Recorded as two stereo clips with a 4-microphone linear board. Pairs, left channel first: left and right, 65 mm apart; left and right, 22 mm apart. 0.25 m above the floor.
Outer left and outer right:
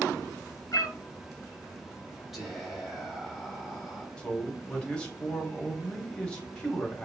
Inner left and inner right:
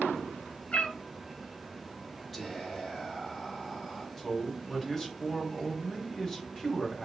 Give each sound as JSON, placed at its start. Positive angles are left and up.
{"t": 0.7, "sound": "a cat meowing", "side_deg": 65, "distance_m": 0.5}
{"t": 2.3, "sound": "whispering", "side_deg": 0, "distance_m": 1.1}
{"t": 4.2, "sound": "a man speaking", "side_deg": 15, "distance_m": 0.9}